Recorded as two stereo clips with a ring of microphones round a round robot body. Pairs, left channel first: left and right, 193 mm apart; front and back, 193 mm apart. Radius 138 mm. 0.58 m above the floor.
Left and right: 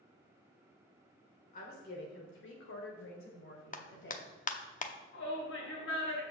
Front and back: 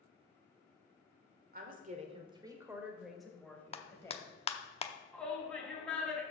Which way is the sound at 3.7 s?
50° left.